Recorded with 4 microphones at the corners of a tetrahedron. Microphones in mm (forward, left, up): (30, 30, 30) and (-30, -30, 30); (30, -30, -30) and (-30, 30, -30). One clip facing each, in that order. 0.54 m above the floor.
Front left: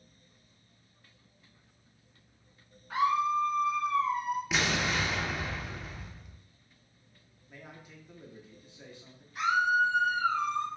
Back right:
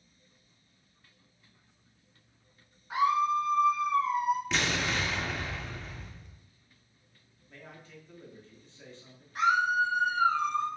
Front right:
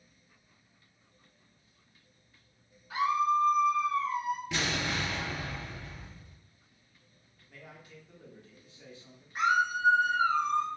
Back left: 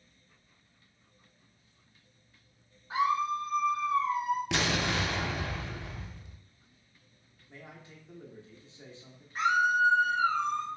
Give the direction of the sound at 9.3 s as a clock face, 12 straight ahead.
4 o'clock.